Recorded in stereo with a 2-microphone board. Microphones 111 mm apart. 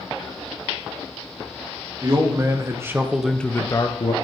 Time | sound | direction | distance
2.0 | a man speaking | 40° right (ahead or behind) | 2.0 m